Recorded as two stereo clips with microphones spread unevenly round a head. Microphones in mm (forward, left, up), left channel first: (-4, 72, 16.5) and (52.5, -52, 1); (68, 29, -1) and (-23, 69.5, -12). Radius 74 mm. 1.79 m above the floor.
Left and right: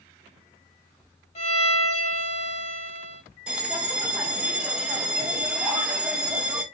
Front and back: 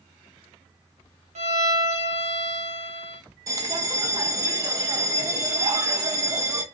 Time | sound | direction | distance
1.4 | a violin | 165° left | 1.3 m
3.5 | a bell | 155° right | 0.5 m